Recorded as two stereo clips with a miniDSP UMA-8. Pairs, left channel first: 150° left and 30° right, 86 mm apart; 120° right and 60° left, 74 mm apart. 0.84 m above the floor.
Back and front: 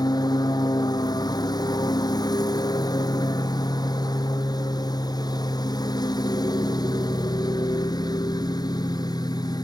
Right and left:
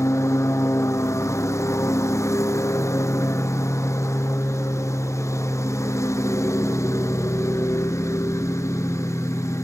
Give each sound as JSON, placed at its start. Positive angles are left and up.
{"t": 0.0, "sound": "a lawn mower", "azimuth_deg": -170}